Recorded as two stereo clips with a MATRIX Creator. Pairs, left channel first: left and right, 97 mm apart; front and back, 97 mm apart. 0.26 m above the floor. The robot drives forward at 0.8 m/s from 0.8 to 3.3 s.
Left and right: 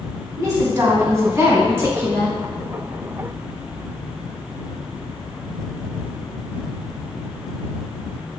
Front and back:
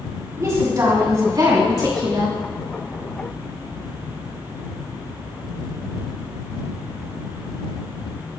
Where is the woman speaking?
140° right, 2.5 m; by 2.4 s 155° right, 3.5 m.